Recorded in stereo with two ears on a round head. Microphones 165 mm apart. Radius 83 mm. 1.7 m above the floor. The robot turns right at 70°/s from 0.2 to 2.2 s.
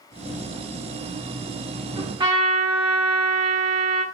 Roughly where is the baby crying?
No baby crying in this recording.